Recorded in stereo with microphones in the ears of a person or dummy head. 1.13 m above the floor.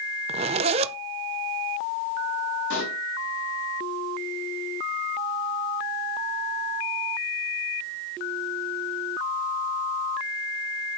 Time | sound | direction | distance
0.3 | a zipper | 35° right (ahead or behind) | 0.6 m
2.7 | a pop | 75° left (ahead or behind) | 6 m